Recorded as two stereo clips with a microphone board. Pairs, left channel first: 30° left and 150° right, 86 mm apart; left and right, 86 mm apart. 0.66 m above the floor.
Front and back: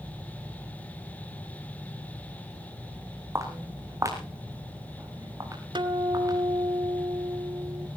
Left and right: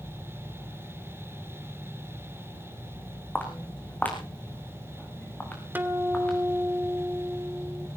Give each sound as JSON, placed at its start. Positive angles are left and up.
{"t": 3.4, "sound": "footsteps", "azimuth_deg": 160, "distance_m": 3.5}
{"t": 5.8, "sound": "a guitar", "azimuth_deg": -155, "distance_m": 1.5}